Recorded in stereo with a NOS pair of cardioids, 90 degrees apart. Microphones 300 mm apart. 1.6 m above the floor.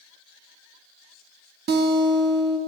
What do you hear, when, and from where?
1.7 s a guitar: 35° right, 0.6 m